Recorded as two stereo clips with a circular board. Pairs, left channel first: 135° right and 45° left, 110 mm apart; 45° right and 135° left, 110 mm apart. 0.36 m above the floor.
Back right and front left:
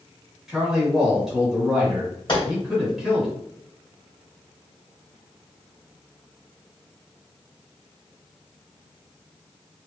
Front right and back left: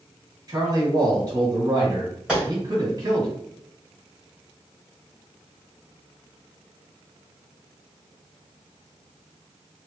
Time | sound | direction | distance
0.5 | a man speaking | 125° left | 1.6 m
2.3 | a gunshot | 150° right | 1.9 m